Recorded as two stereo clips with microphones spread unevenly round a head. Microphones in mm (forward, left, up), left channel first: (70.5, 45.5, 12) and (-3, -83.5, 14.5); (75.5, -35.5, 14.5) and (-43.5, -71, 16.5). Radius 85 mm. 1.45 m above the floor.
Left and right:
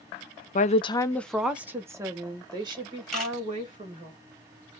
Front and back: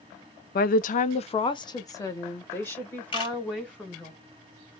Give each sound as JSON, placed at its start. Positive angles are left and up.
{"t": 0.6, "sound": "a woman speaking", "azimuth_deg": 20, "distance_m": 0.5}
{"t": 3.1, "sound": "a camera shutter", "azimuth_deg": -25, "distance_m": 2.5}